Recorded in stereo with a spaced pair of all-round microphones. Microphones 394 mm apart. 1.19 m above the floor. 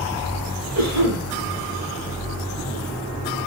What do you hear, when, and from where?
0.8 s a cough: 45° right (ahead or behind), 6 m